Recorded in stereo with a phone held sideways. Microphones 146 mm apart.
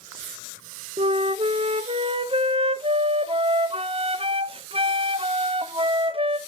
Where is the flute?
40° right (ahead or behind), 0.5 m.